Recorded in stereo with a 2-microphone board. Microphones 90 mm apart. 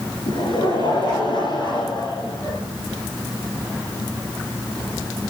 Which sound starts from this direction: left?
Laughter, at 0.3 s.